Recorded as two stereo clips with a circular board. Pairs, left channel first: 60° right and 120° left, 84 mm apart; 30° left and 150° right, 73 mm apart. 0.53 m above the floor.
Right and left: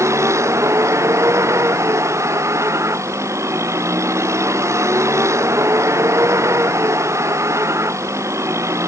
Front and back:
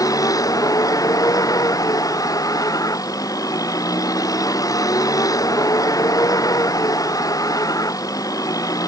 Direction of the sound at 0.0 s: 65° left.